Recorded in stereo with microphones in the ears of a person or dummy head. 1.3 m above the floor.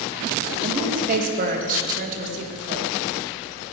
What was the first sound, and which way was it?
A woman speaking, 45° right (ahead or behind).